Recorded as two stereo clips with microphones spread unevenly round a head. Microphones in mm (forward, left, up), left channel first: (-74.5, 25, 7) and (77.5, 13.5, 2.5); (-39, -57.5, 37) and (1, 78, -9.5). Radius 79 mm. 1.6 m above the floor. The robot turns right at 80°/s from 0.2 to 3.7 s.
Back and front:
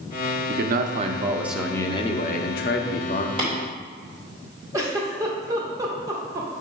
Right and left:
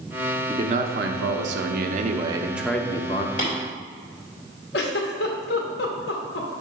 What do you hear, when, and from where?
0.5 s a man speaking: straight ahead, 0.7 m; by 3.3 s 135° right, 0.7 m
3.4 s tapping: 65° right, 2.5 m; by 3.5 s 55° right, 2.5 m
4.7 s a giggle: 75° right, 0.9 m